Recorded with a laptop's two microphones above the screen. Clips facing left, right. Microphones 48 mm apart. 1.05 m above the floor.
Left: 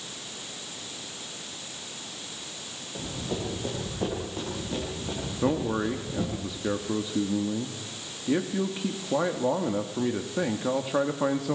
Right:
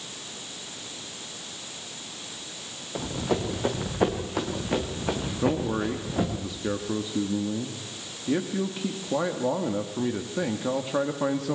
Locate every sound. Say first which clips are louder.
3.0 s running footsteps: right 6 dB; 70° right (ahead or behind), 5 m; by 6.4 s 75° right (ahead or behind), 5 m
5.4 s a man speaking: even; 5° left (ahead or behind), 1.7 m